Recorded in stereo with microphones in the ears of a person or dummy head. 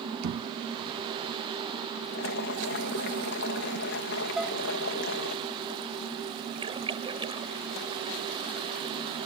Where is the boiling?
65° left (ahead or behind).